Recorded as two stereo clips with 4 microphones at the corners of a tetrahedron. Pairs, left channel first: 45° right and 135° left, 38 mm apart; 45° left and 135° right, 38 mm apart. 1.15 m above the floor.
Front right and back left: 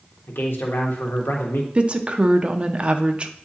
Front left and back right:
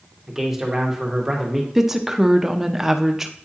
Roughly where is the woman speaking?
Behind left.